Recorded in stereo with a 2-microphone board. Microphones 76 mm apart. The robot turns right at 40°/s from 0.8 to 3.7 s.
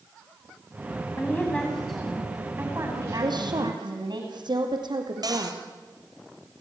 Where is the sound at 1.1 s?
150° left, 9 m; by 4.2 s 105° right, 9 m.